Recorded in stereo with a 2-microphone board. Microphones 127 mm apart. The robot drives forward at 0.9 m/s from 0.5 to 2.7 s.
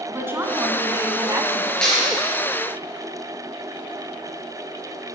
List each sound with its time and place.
0.1 s a woman speaking: 20° right (ahead or behind), 1.3 m; by 1.7 s 25° right (ahead or behind), 1.1 m
1.8 s a clap: 5° left (ahead or behind), 3.5 m